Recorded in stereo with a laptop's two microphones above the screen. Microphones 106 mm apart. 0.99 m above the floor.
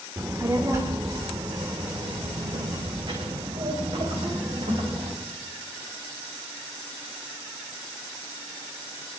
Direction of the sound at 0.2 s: 25° right (ahead or behind).